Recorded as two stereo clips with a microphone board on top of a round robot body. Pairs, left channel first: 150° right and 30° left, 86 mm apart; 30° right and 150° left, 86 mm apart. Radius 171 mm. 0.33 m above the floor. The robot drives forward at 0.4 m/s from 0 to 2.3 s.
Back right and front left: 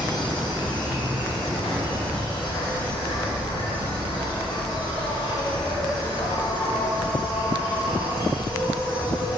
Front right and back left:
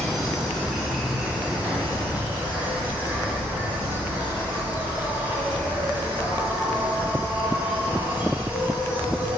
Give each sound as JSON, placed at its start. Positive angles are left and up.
{"t": 0.0, "sound": "an insect", "azimuth_deg": -115, "distance_m": 1.8}